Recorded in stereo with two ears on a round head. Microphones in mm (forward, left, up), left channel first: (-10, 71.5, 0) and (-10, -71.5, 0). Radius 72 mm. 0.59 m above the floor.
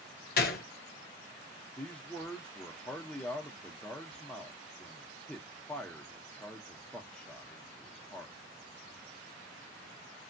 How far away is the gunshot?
About 0.6 m.